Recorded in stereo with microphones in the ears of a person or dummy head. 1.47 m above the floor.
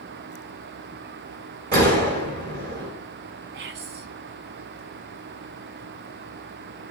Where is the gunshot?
50° right (ahead or behind), 1.5 m.